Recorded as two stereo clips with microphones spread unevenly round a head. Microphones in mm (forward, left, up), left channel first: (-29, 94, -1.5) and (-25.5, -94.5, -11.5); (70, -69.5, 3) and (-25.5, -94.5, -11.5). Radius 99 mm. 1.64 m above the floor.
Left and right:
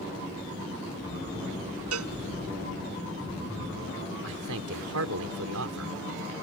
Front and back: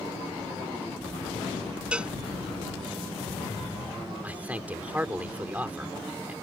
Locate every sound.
1.9 s a cowbell: 85° right
4.2 s a man speaking: 90° right